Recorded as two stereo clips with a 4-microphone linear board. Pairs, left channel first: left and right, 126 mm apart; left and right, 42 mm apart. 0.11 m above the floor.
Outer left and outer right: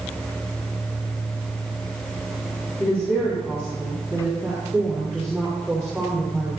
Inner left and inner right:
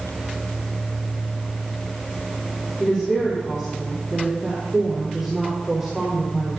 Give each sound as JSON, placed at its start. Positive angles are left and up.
{"t": 2.8, "sound": "a woman speaking", "side_deg": 15, "distance_m": 6.0}